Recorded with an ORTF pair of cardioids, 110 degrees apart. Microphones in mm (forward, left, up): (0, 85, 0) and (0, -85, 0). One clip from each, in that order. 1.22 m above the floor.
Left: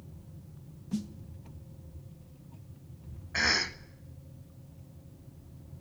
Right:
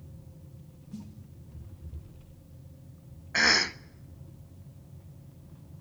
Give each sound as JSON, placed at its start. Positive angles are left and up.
{"t": 0.9, "sound": "a snare drum", "azimuth_deg": 65, "distance_m": 1.6}
{"t": 3.3, "sound": "a cough", "azimuth_deg": -20, "distance_m": 0.8}